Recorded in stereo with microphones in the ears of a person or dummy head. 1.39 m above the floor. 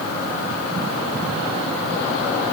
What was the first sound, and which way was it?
Only background noise.